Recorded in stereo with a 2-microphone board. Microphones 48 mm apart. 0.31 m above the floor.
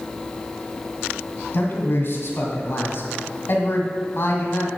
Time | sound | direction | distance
1.5 | a man speaking | 50° left (ahead or behind) | 2 m